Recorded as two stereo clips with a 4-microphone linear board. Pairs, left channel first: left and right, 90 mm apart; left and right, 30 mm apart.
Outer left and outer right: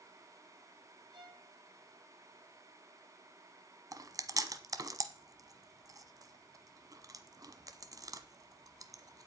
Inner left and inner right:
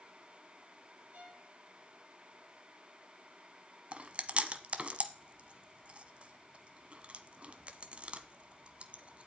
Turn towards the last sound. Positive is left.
turn(degrees=-40)  # may be behind; listen again after turning